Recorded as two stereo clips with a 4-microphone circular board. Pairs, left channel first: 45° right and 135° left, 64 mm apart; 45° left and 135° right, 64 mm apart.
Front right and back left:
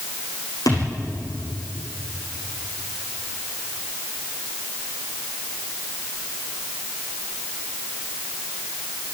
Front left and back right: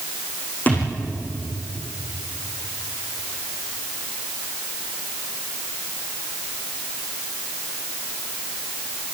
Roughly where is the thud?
Ahead.